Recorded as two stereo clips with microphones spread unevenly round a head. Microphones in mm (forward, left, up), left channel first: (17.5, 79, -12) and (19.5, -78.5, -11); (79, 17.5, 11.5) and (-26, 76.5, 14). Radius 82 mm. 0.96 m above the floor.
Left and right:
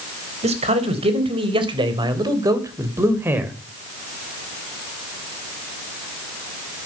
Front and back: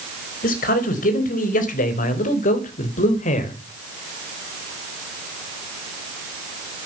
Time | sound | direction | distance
0.4 | a man speaking | 40° right | 4 m